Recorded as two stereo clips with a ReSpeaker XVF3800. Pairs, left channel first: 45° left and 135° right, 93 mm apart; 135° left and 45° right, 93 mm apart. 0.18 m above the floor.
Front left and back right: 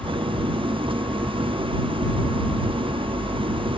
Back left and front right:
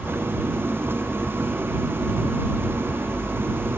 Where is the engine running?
110° right.